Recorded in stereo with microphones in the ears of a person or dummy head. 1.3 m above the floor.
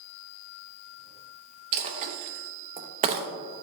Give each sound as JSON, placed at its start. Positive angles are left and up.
{"t": 1.7, "sound": "a dropped coin", "side_deg": -35, "distance_m": 0.6}